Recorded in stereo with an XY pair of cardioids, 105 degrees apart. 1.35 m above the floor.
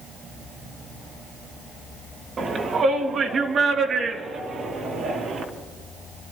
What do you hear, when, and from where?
2.4 s a shout: 45° right, 2.5 m; by 5.4 s 55° right, 4 m